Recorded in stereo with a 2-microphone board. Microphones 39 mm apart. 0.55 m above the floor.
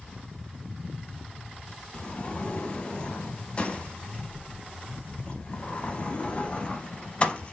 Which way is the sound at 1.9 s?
30° left (ahead or behind).